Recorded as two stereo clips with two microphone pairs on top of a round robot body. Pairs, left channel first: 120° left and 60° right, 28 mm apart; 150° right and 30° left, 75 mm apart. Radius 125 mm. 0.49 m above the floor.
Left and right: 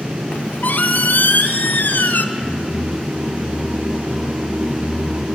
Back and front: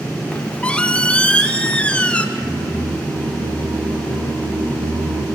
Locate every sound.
0.3 s a squeak: 125° left, 0.5 m
2.4 s singing: 5° right, 4 m